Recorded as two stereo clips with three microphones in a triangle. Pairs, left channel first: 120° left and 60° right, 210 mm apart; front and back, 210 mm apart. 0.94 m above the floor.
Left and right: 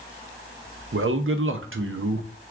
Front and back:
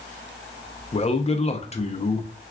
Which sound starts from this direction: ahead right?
A man speaking, at 0.9 s.